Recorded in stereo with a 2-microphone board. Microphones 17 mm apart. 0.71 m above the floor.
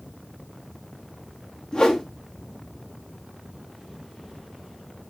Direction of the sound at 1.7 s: 50° left (ahead or behind).